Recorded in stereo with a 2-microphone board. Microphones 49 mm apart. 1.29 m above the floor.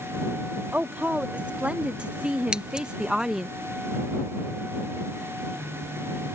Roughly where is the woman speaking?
Right.